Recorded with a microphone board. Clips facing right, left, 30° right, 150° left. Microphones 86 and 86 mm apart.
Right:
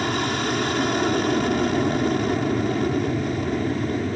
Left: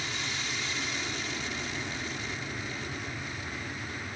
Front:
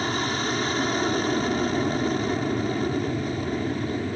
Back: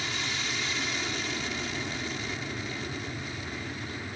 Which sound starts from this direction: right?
An aircraft, at 0.0 s.